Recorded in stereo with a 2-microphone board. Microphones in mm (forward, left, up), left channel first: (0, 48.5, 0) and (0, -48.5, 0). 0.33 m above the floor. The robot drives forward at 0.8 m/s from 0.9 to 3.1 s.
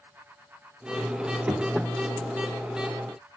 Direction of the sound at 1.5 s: 20° right (ahead or behind).